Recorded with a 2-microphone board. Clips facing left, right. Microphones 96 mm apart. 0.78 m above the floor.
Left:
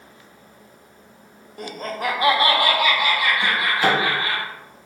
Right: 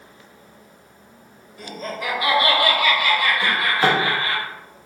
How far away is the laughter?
About 0.8 m.